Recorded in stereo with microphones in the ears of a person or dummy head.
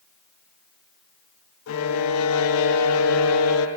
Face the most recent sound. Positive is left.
turn(degrees=85)